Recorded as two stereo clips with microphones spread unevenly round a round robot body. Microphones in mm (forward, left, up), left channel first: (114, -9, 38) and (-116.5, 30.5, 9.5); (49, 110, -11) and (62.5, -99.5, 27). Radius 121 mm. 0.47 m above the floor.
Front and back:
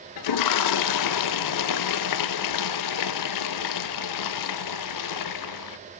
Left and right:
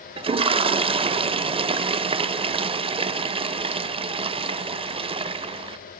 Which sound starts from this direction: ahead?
A toilet flushing, at 0.2 s.